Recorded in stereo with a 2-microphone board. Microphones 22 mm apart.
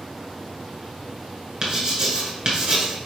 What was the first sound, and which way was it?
Writing, 35° right (ahead or behind).